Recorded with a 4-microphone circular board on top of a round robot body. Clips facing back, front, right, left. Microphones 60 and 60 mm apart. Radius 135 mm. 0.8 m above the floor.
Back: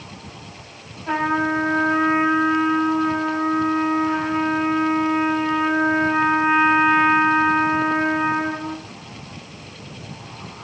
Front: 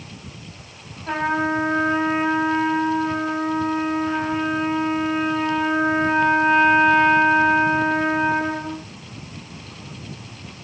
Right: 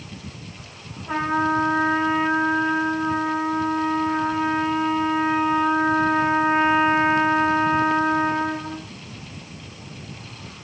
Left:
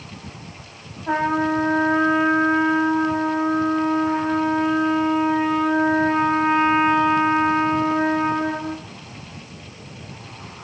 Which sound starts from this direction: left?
A trumpet, at 1.1 s.